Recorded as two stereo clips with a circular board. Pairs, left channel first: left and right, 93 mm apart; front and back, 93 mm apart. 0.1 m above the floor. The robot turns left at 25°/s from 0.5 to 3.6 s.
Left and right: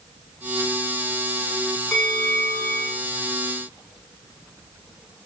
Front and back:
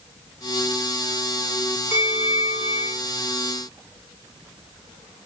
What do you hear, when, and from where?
1.9 s a bell: straight ahead, 7.5 m; by 3.0 s 25° right, 7.5 m